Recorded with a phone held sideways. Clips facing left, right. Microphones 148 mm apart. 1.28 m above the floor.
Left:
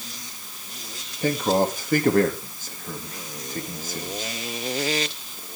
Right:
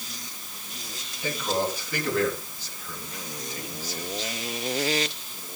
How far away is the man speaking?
About 2.5 m.